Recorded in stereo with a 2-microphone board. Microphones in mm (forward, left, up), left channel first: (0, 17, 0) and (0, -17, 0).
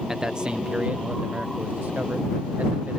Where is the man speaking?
20° right (ahead or behind); by 3.0 s 80° right.